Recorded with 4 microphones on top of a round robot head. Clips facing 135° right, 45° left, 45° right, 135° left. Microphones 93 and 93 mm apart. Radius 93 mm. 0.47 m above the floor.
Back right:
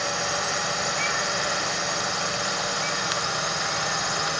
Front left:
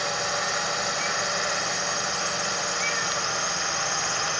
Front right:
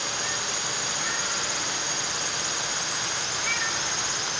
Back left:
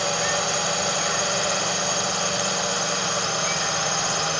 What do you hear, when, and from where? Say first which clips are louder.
0.0 s a drone: back right 1 dB, back left 8 dB; 135° left; by 4.4 s 140° left